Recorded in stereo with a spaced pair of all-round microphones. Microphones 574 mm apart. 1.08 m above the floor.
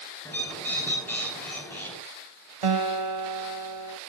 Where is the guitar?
60° right (ahead or behind), 0.9 m.